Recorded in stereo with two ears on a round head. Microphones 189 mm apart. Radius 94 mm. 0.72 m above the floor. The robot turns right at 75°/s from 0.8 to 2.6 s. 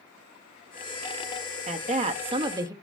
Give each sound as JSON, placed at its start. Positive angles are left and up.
{"t": 1.7, "sound": "a woman speaking", "azimuth_deg": -100, "distance_m": 0.7}